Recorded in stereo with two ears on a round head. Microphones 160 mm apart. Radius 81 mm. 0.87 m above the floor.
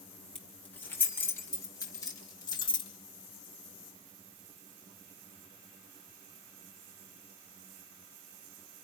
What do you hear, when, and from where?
0.3 s keys jangling: 5° left (ahead or behind), 3 m; by 2.9 s 25° left (ahead or behind), 4 m